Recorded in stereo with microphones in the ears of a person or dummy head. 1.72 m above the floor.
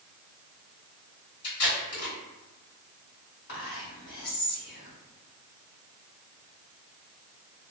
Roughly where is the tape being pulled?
Left.